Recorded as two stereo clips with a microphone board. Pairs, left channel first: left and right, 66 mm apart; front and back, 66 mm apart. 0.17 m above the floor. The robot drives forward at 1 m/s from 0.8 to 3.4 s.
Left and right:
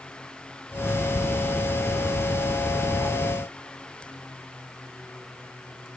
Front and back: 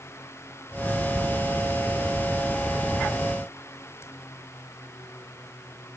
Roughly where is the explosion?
No explosion in this recording.